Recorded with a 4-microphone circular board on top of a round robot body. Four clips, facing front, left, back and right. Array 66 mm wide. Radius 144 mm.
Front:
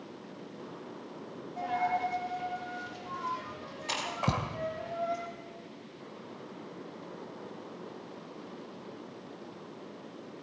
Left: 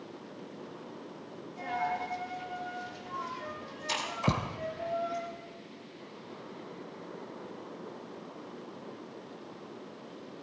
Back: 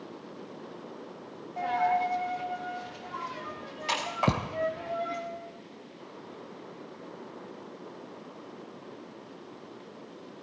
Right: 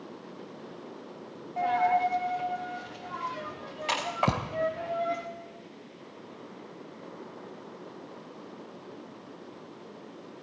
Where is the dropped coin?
105° right, 3.5 m.